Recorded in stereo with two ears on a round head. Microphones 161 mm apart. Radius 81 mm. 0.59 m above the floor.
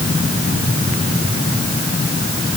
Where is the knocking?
No knocking in this recording.